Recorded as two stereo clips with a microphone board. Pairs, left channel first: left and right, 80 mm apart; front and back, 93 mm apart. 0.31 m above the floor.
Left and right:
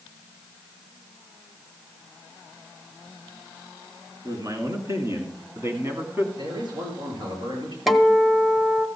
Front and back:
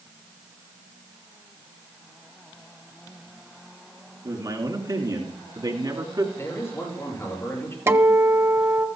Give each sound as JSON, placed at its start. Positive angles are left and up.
{"t": 4.2, "sound": "a man speaking", "azimuth_deg": -135, "distance_m": 3.5}
{"t": 6.3, "sound": "a man speaking", "azimuth_deg": -65, "distance_m": 7.0}
{"t": 7.9, "sound": "a guitar", "azimuth_deg": -175, "distance_m": 0.9}